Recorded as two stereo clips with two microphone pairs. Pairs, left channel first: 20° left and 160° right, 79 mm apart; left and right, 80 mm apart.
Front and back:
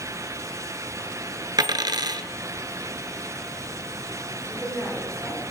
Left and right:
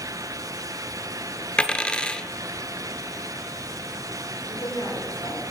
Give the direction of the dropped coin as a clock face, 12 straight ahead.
6 o'clock.